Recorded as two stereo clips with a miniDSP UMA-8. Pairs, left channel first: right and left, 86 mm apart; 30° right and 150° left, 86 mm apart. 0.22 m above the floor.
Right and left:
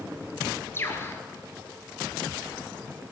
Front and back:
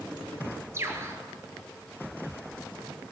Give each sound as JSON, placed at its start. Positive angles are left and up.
{"t": 0.7, "sound": "a bird", "azimuth_deg": -155, "distance_m": 2.0}